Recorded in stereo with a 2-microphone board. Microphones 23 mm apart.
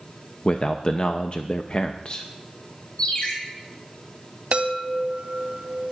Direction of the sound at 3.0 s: 35° left (ahead or behind).